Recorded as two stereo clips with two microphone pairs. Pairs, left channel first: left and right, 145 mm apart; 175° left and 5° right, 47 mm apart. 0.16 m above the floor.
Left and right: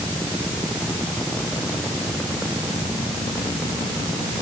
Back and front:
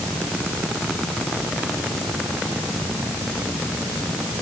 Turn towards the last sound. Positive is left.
No sound to turn to.